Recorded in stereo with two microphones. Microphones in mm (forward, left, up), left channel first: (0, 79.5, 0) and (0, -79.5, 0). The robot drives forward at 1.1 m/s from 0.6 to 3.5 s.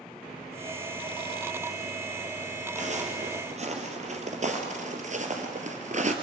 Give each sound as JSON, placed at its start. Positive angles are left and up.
{"t": 2.8, "sound": "footsteps", "side_deg": -50, "distance_m": 2.5}